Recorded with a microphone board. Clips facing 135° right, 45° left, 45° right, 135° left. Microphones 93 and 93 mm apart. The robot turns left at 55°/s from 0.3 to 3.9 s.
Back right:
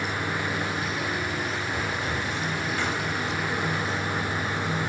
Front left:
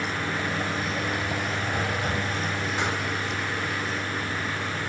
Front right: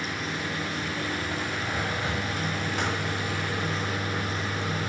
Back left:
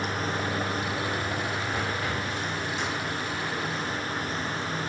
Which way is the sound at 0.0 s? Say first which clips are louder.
Even, back left 3 dB; 115° left.